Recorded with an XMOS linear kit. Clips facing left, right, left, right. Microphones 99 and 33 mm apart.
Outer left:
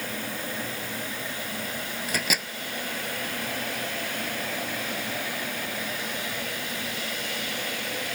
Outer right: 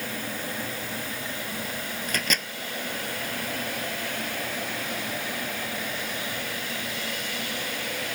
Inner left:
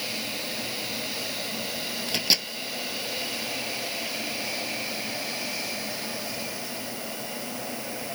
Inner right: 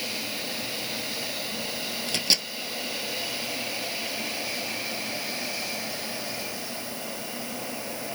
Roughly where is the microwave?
Centre.